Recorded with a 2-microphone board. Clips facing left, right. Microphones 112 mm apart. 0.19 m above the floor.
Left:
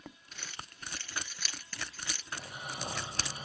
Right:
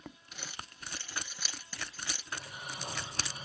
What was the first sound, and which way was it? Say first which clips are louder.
Crumpling: even; 10° right (ahead or behind).